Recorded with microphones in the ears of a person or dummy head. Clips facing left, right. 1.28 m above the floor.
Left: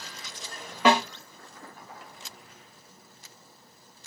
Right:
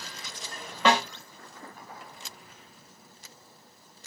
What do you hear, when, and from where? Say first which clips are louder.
0.8 s a snare drum: left 2 dB; 10° left (ahead or behind), 1.2 m